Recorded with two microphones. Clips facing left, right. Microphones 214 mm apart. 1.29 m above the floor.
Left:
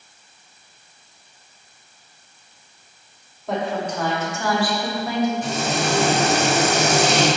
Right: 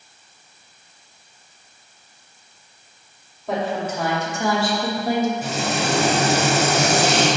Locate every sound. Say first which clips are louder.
3.5 s a woman speaking: even; centre (ahead or behind), 2.5 m; by 5.3 s 50° right (ahead or behind), 1.2 m
5.4 s frying: even; 5° right (ahead or behind), 2 m